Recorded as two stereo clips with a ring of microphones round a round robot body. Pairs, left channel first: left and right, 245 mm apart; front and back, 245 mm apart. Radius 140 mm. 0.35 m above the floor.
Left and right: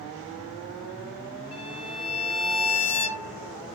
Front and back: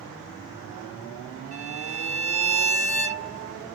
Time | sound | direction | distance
1.5 | a violin | 95° left | 1.8 m